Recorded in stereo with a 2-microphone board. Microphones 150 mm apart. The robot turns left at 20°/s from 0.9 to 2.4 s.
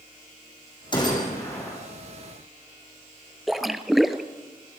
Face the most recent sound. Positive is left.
turn(degrees=0)  # may be behind; listen again after turning